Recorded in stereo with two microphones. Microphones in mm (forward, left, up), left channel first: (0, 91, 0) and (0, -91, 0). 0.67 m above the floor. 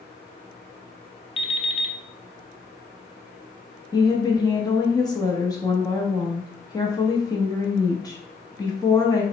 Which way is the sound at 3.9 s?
20° left (ahead or behind).